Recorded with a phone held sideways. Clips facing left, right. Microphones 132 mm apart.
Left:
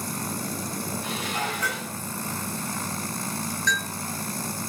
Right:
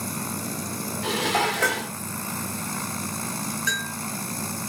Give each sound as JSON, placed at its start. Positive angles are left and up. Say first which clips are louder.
{"t": 1.0, "sound": "dishes clattering", "louder": "right 10 dB", "side_deg": -75, "distance_m": 1.0}
{"t": 3.7, "sound": "a bell", "louder": "left 2 dB", "side_deg": -5, "distance_m": 5.5}